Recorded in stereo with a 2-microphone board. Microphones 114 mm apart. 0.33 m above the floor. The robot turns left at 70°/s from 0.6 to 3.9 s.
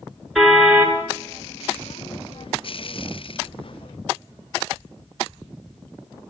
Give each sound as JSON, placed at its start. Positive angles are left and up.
{"t": 0.3, "sound": "a car horn", "side_deg": 0, "distance_m": 2.5}